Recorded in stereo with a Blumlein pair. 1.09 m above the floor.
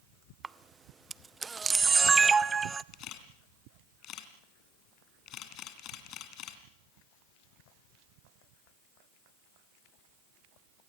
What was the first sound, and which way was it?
A camera shutter, 15° right.